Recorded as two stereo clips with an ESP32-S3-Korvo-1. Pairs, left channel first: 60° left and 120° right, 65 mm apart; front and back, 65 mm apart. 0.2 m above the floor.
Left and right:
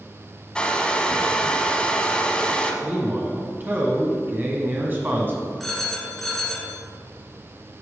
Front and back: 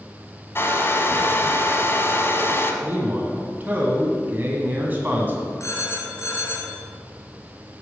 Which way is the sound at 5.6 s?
25° right.